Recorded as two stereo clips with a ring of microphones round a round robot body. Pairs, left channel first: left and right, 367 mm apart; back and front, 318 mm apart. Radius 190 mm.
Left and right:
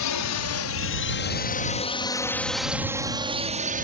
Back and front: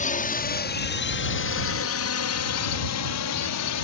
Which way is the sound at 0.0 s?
120° left.